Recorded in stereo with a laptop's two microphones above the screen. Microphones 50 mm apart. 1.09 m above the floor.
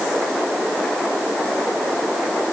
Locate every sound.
Only background noise.